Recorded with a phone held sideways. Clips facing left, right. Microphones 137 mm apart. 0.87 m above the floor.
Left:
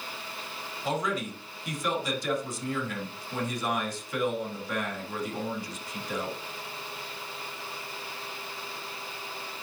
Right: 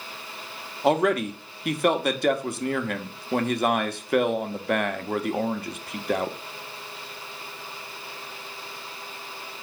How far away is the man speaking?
About 0.9 m.